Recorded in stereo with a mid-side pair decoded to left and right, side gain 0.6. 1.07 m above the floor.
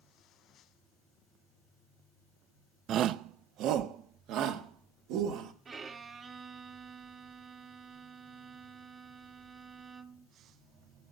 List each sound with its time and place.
2.9 s a shout: 55° right, 0.6 m; by 5.5 s 70° right, 2.5 m
5.7 s a violin: 40° right, 1.3 m